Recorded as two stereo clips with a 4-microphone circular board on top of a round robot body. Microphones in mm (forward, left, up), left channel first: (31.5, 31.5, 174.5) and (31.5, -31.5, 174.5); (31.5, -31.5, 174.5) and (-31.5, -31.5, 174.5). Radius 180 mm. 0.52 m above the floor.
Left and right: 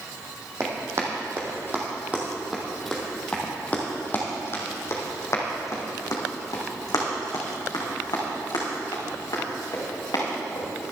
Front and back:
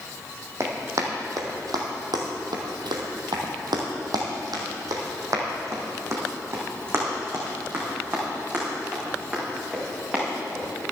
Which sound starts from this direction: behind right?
Running footsteps, at 0.6 s.